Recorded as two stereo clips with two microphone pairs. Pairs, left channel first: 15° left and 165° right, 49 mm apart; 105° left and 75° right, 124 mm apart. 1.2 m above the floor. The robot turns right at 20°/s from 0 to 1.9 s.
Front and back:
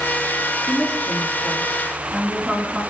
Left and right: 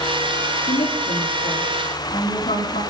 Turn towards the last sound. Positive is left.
turn(degrees=110)